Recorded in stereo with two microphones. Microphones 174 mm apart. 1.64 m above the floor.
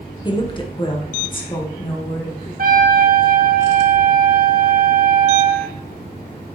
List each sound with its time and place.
0.2 s a woman speaking: 25° left (ahead or behind), 1.2 m; by 2.5 s 30° left (ahead or behind), 2.5 m
2.6 s a trumpet: 55° right (ahead or behind), 1.9 m